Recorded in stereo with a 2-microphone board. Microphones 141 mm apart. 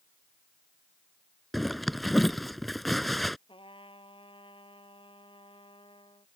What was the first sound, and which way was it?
A zipper, centre (ahead or behind).